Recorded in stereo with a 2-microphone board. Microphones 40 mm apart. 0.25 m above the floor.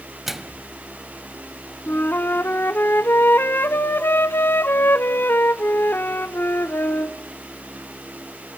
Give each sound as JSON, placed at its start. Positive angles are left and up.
{"t": 0.3, "sound": "a microwave", "side_deg": -5, "distance_m": 1.0}
{"t": 1.9, "sound": "a flute", "side_deg": 65, "distance_m": 0.5}